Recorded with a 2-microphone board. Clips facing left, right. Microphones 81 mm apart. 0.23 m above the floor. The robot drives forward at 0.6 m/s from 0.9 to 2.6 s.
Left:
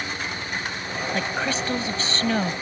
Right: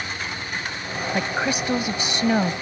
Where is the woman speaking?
15° right (ahead or behind).